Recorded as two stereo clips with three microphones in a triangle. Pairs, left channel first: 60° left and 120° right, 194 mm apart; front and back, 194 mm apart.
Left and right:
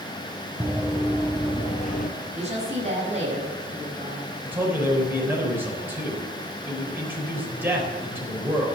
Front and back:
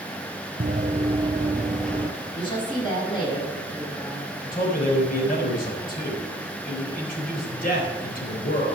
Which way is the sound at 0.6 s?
170° left.